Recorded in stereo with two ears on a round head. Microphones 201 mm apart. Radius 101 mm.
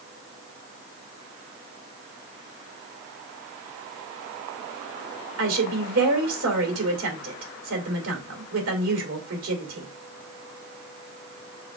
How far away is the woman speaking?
About 3 m.